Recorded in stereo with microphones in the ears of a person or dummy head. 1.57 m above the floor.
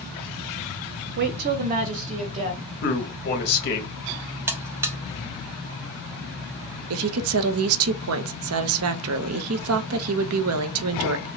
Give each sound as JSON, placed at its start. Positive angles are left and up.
{"t": 1.2, "sound": "a woman speaking", "side_deg": -55, "distance_m": 0.6}
{"t": 2.8, "sound": "a man speaking", "side_deg": 55, "distance_m": 1.5}
{"t": 4.5, "sound": "a buzzer", "side_deg": -15, "distance_m": 0.6}
{"t": 6.9, "sound": "a woman speaking", "side_deg": -70, "distance_m": 0.5}